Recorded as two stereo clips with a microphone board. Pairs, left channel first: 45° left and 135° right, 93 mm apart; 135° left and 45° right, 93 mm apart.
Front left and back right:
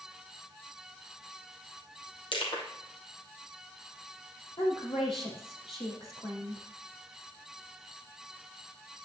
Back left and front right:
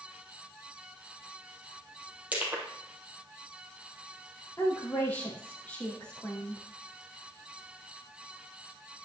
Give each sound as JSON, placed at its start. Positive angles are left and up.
{"t": 2.3, "sound": "crushing", "azimuth_deg": 30, "distance_m": 3.5}
{"t": 4.6, "sound": "a woman speaking", "azimuth_deg": 60, "distance_m": 4.0}